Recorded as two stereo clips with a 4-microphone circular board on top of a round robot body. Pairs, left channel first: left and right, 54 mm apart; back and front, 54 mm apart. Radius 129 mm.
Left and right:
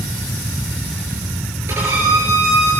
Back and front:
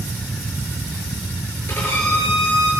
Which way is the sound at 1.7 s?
135° right.